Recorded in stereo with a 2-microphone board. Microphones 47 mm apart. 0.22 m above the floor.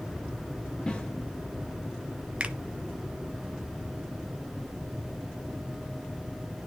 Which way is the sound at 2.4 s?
30° right (ahead or behind).